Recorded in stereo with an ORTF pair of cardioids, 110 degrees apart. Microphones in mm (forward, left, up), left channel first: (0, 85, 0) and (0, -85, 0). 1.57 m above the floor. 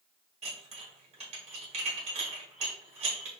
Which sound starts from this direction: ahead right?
Dishes clattering, at 0.4 s.